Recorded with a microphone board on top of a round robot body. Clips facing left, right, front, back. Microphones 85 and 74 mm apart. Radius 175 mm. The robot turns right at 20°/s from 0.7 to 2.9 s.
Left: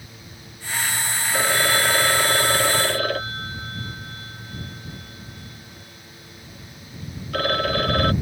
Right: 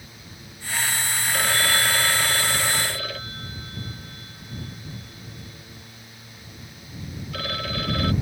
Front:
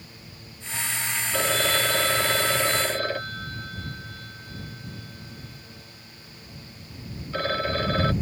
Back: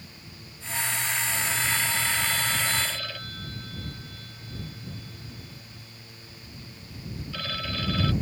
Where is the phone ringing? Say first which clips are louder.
Left 3 dB, front 9 dB; 20° left; by 8.1 s 50° left.